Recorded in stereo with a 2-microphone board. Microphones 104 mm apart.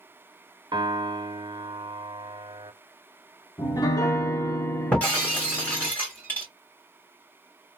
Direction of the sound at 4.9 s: 15° left (ahead or behind).